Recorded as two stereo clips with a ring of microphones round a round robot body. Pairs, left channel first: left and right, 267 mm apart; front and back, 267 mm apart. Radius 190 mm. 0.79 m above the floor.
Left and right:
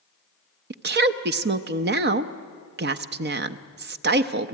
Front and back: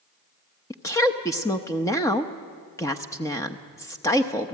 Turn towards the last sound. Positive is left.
turn(degrees=-75)